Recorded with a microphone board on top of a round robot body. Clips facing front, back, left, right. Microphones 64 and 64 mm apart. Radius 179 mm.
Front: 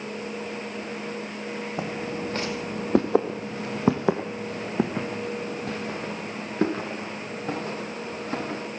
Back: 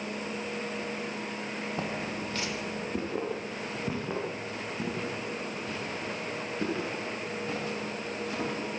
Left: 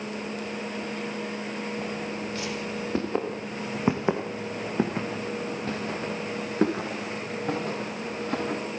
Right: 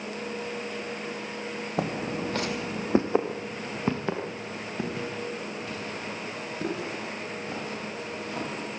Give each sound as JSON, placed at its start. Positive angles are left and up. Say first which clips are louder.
{"t": 1.8, "sound": "footsteps", "louder": "front 5 dB, right 2 dB", "azimuth_deg": -75, "distance_m": 2.5}